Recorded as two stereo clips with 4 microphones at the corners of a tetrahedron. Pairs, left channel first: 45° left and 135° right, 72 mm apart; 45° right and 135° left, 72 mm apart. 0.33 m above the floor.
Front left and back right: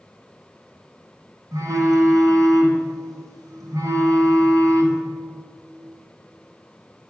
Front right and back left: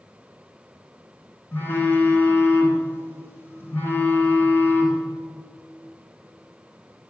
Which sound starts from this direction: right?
A phone buzzing, at 1.5 s.